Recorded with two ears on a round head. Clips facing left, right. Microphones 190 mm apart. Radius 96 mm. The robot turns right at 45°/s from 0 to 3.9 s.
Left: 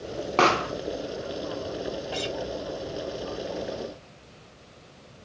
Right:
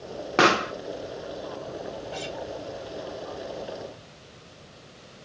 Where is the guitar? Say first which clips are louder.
Left 4 dB; 70° left (ahead or behind), 3 m; by 2.4 s 60° left (ahead or behind), 3 m.